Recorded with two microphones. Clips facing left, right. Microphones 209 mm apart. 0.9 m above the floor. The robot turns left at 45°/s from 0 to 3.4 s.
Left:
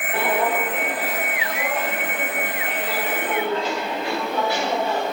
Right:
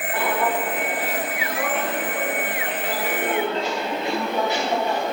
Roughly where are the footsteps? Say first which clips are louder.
Left 2 dB; left.